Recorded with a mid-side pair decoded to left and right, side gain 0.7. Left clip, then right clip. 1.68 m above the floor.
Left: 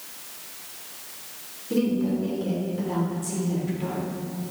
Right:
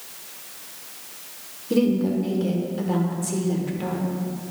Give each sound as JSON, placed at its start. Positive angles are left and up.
{"t": 1.7, "sound": "a woman speaking", "azimuth_deg": -25, "distance_m": 1.4}